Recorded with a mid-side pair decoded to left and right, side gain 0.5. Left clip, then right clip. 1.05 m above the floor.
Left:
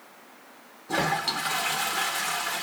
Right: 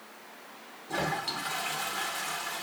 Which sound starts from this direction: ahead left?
A toilet flushing, at 0.9 s.